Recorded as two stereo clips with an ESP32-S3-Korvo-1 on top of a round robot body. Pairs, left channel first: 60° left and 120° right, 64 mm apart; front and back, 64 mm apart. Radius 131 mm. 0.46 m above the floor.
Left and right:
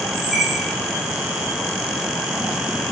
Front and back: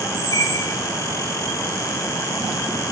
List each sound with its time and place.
0.1 s a squeak: 35° right, 3 m